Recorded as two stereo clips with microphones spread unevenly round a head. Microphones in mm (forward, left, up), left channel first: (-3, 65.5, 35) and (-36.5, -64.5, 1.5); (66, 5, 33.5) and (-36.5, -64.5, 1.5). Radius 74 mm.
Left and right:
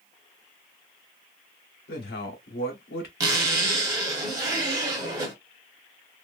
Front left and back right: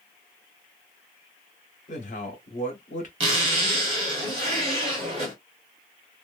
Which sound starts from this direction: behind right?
A zipper, at 3.2 s.